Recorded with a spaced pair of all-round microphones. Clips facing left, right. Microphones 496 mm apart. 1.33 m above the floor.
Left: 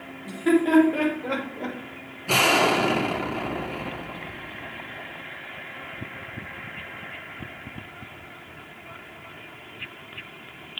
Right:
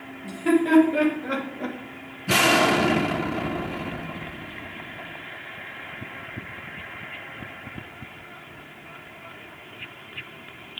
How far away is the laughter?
About 3 m.